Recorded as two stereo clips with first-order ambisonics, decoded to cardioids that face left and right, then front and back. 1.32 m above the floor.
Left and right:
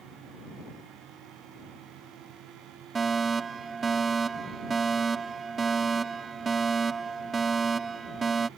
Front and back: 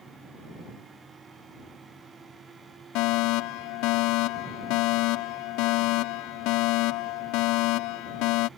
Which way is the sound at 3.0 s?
20° right.